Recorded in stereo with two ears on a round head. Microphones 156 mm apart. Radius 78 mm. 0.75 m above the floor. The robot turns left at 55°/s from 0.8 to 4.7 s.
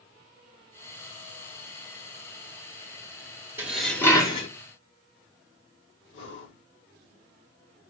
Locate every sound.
3.6 s dishes clattering: 170° right, 1.3 m; by 4.5 s 140° left, 1.3 m
6.1 s breathing: 80° left, 3.5 m